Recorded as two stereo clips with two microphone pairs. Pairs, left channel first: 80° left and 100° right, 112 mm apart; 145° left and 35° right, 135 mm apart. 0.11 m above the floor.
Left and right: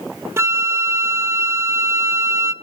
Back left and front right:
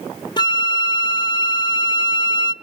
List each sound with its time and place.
0.4 s a flute: 165° right, 0.5 m